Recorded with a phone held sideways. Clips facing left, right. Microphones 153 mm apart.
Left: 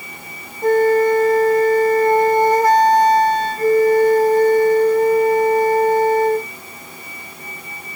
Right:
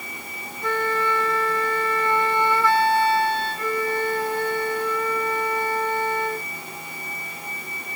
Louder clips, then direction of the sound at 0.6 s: Left 12 dB; 40° left (ahead or behind).